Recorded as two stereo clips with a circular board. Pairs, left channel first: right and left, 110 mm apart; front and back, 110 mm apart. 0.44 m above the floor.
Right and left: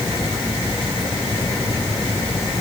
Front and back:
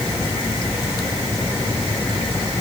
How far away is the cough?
No cough in this recording.